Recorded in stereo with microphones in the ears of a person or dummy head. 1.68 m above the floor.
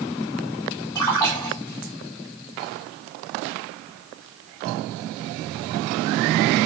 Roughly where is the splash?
Left.